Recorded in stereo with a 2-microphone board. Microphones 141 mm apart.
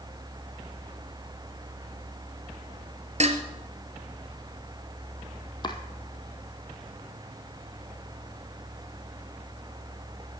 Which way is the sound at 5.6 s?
30° left (ahead or behind).